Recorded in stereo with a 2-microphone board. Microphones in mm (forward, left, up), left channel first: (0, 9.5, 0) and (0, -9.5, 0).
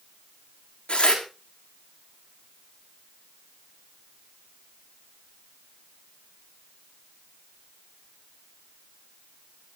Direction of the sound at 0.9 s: 90° left.